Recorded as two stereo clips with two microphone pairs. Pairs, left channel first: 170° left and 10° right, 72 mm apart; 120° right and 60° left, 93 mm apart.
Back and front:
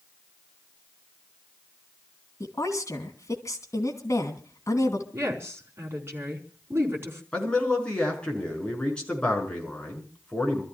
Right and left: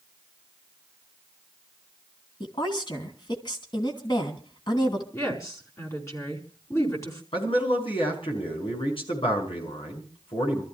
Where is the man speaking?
115° right, 5.5 m.